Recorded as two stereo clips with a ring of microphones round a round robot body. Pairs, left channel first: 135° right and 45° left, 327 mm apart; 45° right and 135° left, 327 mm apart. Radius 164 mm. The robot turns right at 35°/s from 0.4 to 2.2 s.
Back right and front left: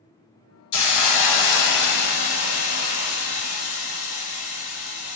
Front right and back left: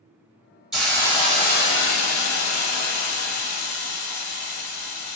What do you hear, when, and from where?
0.7 s a hiss: 135° right, 0.8 m; by 5.2 s 85° right, 0.8 m